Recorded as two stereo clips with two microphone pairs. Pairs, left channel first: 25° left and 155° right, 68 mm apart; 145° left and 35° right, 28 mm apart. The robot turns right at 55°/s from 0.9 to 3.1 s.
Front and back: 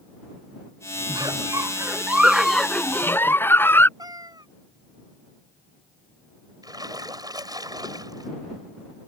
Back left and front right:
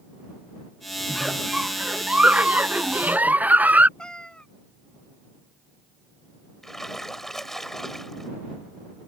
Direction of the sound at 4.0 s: 160° right.